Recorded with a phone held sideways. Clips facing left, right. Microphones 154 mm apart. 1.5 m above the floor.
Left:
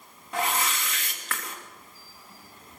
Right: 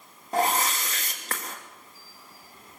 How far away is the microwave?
No microwave in this recording.